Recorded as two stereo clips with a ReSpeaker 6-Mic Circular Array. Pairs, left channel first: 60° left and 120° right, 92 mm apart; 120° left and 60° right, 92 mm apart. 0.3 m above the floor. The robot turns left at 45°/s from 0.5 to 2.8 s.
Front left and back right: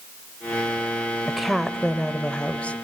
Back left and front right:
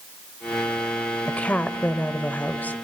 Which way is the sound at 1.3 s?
160° left.